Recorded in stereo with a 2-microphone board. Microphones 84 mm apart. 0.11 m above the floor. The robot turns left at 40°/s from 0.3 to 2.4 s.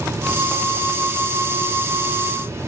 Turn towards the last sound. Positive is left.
No sound to turn to.